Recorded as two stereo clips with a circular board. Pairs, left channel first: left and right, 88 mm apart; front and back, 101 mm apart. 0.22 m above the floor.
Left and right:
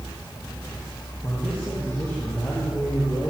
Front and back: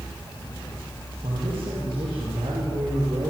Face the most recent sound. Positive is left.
turn(degrees=145)